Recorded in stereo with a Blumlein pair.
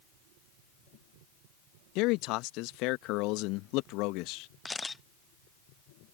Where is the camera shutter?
10° left.